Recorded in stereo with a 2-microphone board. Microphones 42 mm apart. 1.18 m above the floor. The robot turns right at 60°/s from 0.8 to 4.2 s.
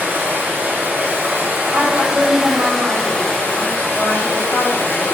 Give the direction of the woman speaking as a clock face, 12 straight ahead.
4 o'clock.